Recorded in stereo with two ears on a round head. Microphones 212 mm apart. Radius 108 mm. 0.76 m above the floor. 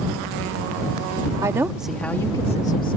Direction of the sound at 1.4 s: 15° right (ahead or behind).